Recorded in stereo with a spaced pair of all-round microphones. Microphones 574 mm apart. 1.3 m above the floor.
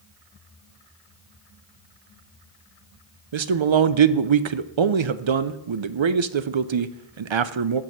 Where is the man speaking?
55° right (ahead or behind), 0.5 m.